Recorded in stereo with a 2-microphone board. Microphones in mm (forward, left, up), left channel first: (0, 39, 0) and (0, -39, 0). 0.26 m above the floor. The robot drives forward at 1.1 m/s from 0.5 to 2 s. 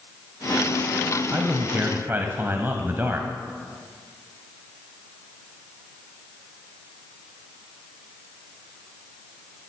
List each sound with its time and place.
1.3 s a man speaking: 30° right (ahead or behind), 1.3 m